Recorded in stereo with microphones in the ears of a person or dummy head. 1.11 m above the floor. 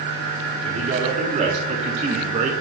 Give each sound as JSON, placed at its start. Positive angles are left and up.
{"t": 0.6, "sound": "a man speaking", "side_deg": -40, "distance_m": 3.0}